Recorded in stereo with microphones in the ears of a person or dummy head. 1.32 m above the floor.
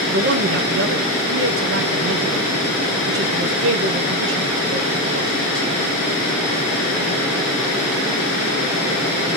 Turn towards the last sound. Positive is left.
turn(degrees=-55)  # may be behind; listen again after turning